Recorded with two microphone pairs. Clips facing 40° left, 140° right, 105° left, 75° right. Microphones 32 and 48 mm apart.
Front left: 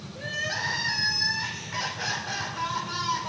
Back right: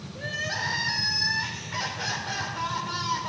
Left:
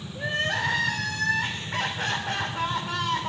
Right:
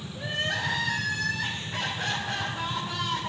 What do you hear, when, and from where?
0.1 s crying: 135° left, 3.5 m